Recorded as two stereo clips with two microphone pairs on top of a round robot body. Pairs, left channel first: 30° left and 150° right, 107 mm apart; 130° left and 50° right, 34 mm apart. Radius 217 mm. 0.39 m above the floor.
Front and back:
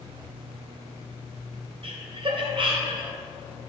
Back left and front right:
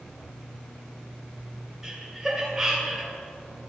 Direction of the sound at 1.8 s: 125° right.